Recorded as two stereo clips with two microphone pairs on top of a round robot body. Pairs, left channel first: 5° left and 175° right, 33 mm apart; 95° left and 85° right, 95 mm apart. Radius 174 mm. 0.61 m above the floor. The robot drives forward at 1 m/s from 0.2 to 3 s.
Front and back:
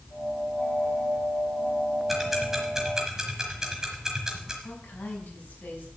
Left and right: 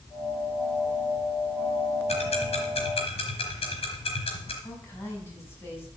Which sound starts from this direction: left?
Ticking, at 2.1 s.